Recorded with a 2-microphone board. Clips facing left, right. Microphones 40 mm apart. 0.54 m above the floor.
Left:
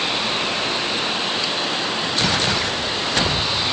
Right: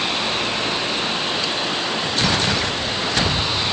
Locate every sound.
Only background noise.